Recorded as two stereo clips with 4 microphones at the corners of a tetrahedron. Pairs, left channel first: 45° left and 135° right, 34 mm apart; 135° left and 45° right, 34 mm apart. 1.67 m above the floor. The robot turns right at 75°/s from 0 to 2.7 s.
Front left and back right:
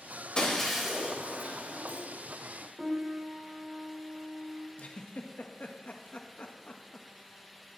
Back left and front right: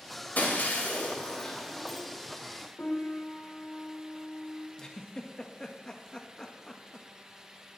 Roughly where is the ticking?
No ticking in this recording.